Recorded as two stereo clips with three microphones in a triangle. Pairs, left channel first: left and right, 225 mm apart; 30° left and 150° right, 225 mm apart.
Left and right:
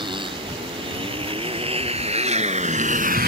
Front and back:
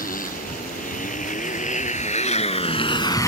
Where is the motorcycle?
20° right; by 3.3 s 45° right.